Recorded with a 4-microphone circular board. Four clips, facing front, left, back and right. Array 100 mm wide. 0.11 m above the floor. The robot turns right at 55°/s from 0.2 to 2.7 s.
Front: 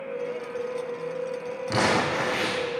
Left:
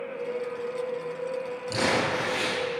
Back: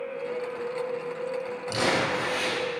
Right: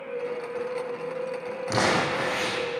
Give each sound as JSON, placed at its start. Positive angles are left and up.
{"t": 1.7, "sound": "crumpling", "azimuth_deg": -55, "distance_m": 4.5}